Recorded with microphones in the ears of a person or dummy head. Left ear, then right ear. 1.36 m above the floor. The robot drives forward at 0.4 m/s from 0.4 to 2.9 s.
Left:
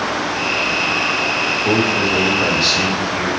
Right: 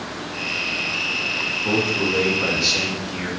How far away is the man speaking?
About 1.7 m.